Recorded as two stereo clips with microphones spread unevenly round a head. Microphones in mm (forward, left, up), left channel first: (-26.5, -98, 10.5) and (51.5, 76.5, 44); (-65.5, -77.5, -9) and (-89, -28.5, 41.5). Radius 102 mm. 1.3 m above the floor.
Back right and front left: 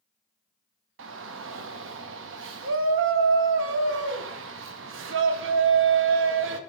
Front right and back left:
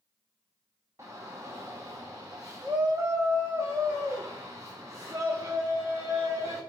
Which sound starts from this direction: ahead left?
A shout, at 1.0 s.